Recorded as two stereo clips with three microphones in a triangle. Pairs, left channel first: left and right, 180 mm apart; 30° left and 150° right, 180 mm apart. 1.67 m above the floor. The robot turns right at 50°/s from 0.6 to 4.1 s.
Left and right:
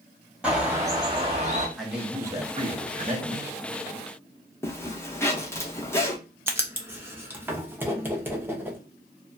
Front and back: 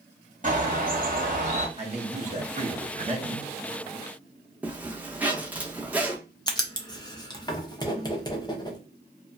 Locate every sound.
0.4 s a bird: 170° right, 0.9 m; by 1.7 s 120° right, 0.9 m
1.8 s a man speaking: straight behind, 0.8 m; by 3.5 s 95° right, 0.8 m
4.6 s a zipper: 140° left, 0.6 m
6.5 s writing: 20° right, 0.6 m